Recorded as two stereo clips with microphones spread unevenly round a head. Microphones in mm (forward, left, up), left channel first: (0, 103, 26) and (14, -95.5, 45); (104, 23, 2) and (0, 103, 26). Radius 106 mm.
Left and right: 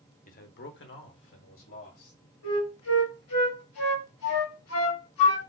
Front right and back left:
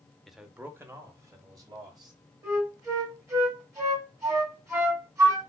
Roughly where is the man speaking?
Ahead left.